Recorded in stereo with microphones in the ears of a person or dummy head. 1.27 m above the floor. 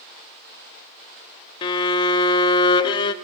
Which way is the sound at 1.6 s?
25° left (ahead or behind).